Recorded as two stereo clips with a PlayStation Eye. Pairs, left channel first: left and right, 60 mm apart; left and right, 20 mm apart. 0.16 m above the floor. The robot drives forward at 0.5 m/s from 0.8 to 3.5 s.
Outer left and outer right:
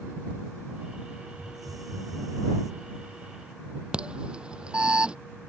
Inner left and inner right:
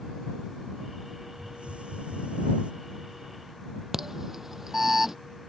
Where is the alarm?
15° right (ahead or behind).